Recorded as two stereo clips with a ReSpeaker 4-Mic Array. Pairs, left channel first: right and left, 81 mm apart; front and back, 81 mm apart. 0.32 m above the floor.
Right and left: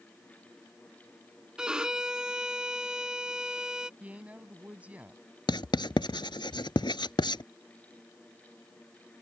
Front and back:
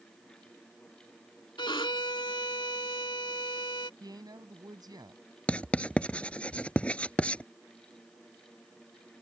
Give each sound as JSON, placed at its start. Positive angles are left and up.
{"t": 1.6, "sound": "a violin", "azimuth_deg": 10}
{"t": 4.0, "sound": "a woman speaking", "azimuth_deg": 160}
{"t": 5.5, "sound": "writing", "azimuth_deg": -75}